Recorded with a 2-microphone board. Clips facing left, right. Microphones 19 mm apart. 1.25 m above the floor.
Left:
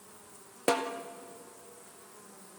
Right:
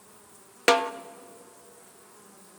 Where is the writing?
I don't hear writing.